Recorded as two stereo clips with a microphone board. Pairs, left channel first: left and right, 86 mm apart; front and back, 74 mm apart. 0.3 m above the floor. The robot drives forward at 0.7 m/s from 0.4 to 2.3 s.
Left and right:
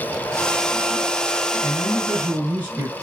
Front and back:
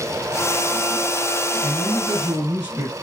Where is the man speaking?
145° right, 1.7 m; by 2.9 s 155° right, 2 m.